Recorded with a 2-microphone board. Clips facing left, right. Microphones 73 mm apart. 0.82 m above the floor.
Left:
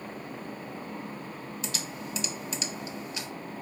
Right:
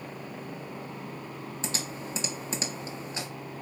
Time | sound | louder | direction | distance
1.6 | typing on a keyboard | right 3 dB | 30° right (ahead or behind) | 1.2 m